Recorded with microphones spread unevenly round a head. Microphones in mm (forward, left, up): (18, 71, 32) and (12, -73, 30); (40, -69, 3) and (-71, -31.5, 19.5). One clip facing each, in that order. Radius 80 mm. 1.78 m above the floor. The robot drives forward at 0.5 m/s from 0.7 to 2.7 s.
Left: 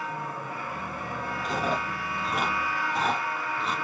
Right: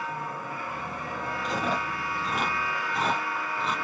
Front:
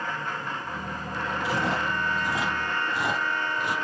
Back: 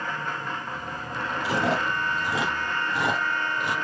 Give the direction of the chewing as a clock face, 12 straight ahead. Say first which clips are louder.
Left 1 dB, back 3 dB; 6 o'clock.